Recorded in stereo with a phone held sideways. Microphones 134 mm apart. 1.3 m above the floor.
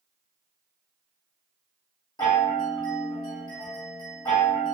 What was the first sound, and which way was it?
A chime, 30° left (ahead or behind).